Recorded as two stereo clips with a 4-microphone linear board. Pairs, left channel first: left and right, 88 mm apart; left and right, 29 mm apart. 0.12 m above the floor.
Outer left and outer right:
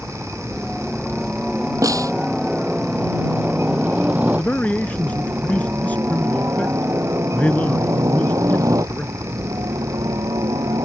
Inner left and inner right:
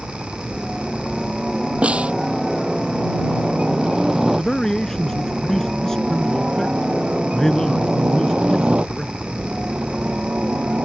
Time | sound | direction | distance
0.0 | a helicopter | centre (ahead or behind) | ?
1.8 | a snare drum | 40° right (ahead or behind) | ?
4.3 | a man speaking | 15° left (ahead or behind) | ?